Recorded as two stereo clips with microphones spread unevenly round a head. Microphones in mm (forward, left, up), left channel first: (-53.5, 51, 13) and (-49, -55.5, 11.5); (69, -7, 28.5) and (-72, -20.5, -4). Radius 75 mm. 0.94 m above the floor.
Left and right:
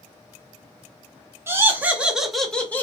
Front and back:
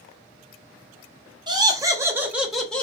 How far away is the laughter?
About 0.9 m.